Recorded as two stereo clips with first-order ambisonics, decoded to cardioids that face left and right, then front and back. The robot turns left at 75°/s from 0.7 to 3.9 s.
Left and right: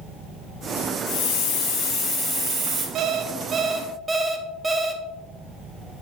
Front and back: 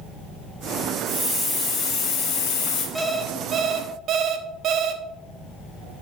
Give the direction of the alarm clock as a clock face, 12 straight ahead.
3 o'clock.